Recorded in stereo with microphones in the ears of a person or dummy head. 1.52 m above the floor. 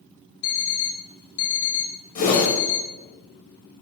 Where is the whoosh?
40° left (ahead or behind), 1.5 m.